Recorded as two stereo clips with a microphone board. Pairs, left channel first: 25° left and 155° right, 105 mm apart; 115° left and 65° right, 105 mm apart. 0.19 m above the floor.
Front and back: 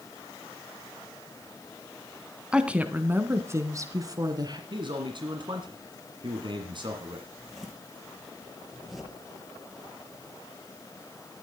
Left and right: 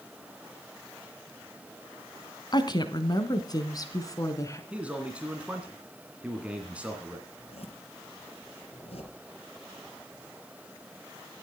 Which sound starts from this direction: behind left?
A woman speaking, at 2.5 s.